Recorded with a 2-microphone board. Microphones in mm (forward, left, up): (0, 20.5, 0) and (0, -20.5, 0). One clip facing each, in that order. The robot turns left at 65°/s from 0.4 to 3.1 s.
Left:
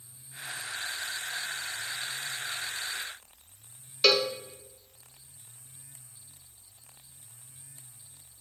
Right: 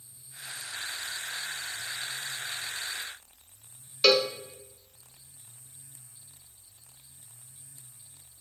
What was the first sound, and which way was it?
A cowbell, 5° right (ahead or behind).